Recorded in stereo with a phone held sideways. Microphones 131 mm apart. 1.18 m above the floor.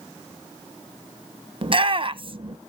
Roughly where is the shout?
Right.